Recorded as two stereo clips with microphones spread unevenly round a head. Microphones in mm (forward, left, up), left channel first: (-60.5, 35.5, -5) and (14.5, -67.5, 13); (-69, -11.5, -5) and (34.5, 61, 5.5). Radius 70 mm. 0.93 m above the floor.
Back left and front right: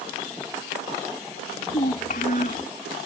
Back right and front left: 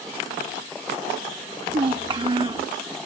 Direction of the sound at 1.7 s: 90° left.